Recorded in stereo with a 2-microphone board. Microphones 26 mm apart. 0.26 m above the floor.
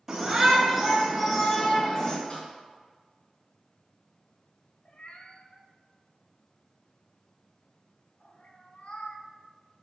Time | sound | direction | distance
0.1 | a shout | 20° right (ahead or behind) | 1.7 m
2.3 | a snare drum | 25° left (ahead or behind) | 3 m
4.8 | a cat meowing | 50° left (ahead or behind) | 0.7 m